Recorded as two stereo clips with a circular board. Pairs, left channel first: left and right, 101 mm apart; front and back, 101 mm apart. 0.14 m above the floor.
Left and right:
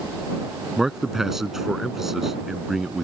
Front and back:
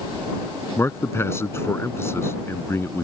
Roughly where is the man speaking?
Ahead.